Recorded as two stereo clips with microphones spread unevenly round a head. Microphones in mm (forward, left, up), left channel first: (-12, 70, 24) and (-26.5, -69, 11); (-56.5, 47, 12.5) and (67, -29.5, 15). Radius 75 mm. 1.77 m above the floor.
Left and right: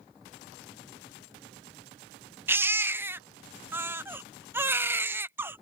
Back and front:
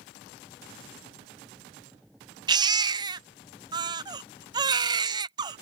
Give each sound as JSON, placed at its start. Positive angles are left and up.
{"t": 2.5, "sound": "a baby crying", "azimuth_deg": -25}